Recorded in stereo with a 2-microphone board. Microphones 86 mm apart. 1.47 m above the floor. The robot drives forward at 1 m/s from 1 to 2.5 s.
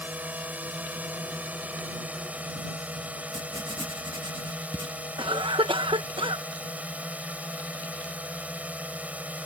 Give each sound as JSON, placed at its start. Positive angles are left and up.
{"t": 0.0, "sound": "a drone", "side_deg": -20}
{"t": 3.3, "sound": "writing", "side_deg": -70}
{"t": 5.2, "sound": "a cough", "side_deg": -75}